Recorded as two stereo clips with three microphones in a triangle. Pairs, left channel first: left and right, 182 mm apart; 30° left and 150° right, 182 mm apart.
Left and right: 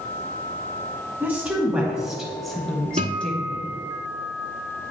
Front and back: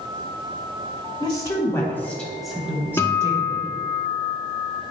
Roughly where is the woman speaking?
Ahead.